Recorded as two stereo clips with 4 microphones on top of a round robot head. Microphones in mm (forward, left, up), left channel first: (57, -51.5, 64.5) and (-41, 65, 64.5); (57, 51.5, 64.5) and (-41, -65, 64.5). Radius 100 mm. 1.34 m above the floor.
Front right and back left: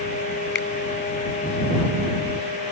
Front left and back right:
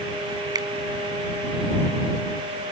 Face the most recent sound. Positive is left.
turn(degrees=-65)